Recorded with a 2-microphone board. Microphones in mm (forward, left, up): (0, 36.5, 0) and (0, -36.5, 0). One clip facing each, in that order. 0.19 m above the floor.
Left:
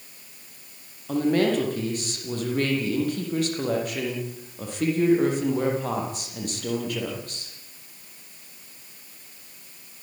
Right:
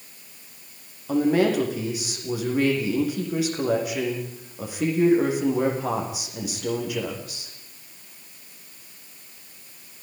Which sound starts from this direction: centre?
A woman speaking, at 1.1 s.